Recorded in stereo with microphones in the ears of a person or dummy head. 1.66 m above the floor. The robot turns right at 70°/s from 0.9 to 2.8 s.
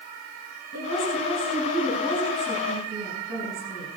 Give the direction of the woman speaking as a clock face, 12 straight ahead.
9 o'clock.